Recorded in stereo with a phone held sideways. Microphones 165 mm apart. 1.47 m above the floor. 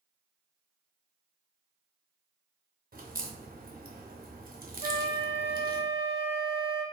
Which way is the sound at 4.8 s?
35° right (ahead or behind).